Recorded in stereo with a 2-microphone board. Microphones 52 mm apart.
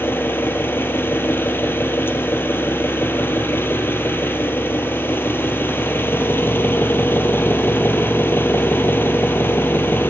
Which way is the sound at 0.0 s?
45° left (ahead or behind).